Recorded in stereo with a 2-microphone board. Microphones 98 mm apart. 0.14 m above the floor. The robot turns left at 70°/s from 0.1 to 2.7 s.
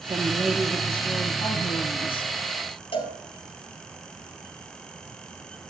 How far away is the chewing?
No chewing in this recording.